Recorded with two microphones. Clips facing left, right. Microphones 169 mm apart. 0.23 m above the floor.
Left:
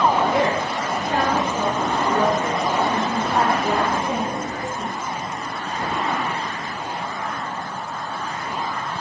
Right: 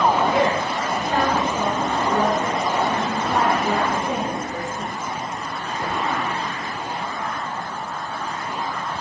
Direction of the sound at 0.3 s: 5° right (ahead or behind).